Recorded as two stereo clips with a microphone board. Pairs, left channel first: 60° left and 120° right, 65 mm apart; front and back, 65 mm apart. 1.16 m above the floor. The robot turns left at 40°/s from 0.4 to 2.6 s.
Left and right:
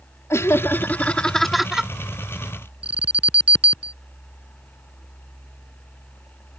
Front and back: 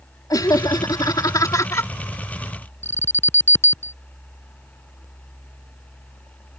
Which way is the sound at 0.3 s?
15° left.